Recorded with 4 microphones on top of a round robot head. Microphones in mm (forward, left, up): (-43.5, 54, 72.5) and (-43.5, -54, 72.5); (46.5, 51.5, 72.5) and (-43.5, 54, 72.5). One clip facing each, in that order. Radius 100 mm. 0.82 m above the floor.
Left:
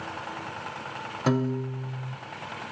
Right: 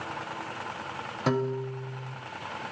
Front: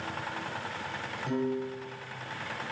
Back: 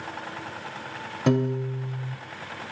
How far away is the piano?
About 1.5 m.